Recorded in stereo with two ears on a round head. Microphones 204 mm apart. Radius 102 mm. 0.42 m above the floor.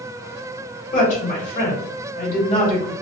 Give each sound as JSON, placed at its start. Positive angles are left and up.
{"t": 0.9, "sound": "a woman speaking", "side_deg": 35, "distance_m": 1.8}